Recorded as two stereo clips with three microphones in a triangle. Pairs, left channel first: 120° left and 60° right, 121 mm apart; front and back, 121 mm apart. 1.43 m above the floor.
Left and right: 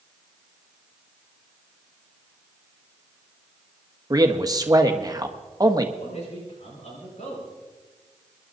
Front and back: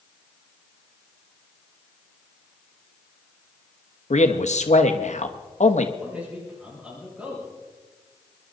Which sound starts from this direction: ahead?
A man speaking, at 4.1 s.